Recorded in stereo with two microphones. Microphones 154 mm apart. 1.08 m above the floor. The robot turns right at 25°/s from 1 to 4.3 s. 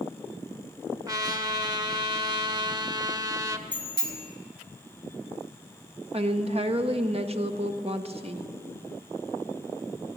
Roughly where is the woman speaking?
Right.